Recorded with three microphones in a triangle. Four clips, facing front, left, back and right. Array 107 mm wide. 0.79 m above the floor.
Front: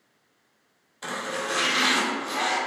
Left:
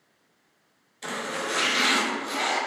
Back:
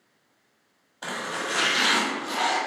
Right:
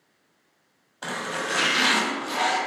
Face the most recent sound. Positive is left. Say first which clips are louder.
# right 1 dB, front 1 dB
turn(degrees=-120)